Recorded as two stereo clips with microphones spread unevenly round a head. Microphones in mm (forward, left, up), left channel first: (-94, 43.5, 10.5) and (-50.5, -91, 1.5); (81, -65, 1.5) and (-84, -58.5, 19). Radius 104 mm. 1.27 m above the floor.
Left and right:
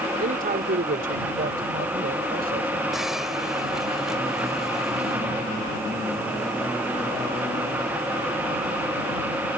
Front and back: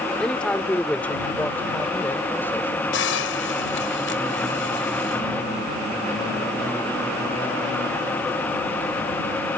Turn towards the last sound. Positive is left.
turn(degrees=20)